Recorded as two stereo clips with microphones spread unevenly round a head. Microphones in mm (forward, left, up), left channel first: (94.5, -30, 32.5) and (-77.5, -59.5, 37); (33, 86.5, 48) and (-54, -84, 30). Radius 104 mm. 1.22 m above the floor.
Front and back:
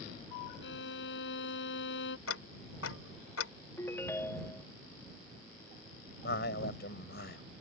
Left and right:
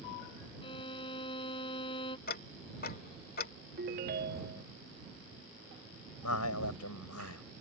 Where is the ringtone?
70° right.